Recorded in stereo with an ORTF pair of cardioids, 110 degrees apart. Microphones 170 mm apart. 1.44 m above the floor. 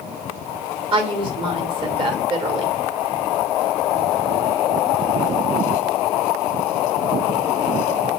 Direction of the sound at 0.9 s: 30° right.